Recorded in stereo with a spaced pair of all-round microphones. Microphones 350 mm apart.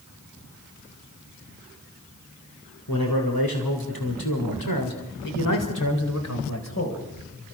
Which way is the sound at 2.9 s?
70° left (ahead or behind).